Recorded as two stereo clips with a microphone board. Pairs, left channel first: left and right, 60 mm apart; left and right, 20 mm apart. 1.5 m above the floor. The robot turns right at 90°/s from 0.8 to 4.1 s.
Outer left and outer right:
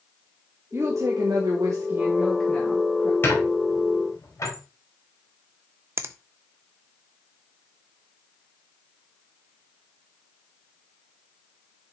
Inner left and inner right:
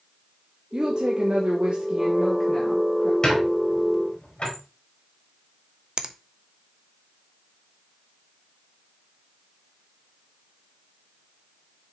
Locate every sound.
0.7 s a woman speaking: 140° right, 1.0 m; by 3.1 s 70° left, 1.0 m
3.2 s a squeak: 40° left (ahead or behind), 3 m; by 4.6 s 55° left (ahead or behind), 3 m
6.0 s a finger snap: 45° right (ahead or behind), 0.6 m